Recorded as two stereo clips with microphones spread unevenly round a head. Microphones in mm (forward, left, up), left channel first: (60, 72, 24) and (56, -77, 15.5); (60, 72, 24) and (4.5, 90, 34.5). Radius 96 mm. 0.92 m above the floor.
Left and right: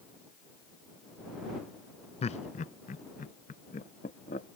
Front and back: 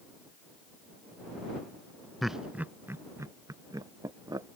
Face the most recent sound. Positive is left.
turn(degrees=140)